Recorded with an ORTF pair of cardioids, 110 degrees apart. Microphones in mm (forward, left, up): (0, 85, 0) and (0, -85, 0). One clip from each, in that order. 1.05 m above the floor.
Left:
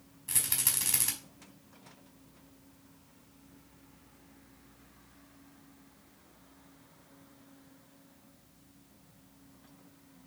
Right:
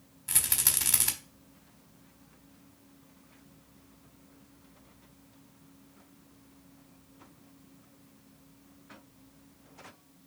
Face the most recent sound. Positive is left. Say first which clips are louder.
# right 3 dB
turn(degrees=-25)